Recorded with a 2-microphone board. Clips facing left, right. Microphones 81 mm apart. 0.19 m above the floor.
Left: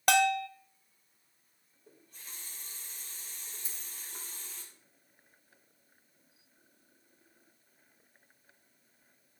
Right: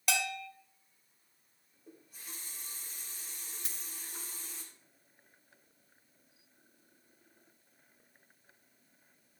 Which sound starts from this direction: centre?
A running tap, at 1.9 s.